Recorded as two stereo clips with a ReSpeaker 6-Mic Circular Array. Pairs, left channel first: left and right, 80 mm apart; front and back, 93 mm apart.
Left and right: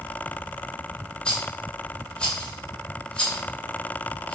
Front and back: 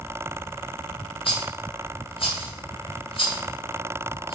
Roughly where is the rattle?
Ahead.